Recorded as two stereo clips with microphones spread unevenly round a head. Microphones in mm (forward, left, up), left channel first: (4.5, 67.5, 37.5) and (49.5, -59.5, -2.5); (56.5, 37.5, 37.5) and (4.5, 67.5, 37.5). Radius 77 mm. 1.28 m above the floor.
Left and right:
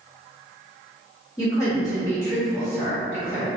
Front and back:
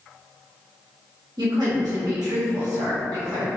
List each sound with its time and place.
1.4 s a woman speaking: straight behind, 1.1 m